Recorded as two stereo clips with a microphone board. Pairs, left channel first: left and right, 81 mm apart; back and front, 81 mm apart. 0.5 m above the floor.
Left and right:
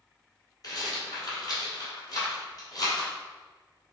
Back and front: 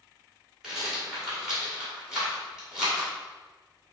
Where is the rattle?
80° left, 1.8 m.